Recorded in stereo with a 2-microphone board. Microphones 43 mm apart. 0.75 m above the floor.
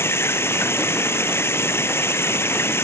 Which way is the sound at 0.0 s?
70° left (ahead or behind).